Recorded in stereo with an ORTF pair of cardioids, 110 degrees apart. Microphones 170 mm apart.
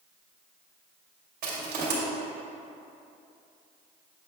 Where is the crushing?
50° right, 2 m.